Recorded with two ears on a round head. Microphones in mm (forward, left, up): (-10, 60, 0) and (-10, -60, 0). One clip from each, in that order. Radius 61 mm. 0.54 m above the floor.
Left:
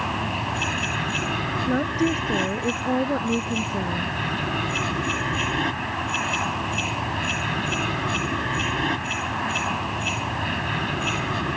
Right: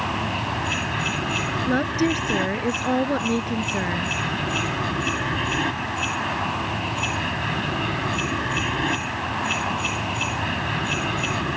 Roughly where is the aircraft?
Centre.